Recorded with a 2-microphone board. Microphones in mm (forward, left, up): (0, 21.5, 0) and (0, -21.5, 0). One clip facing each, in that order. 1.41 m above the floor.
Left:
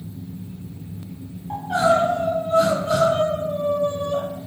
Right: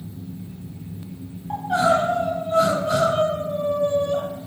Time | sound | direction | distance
1.5 | crying | 10° right (ahead or behind) | 0.7 m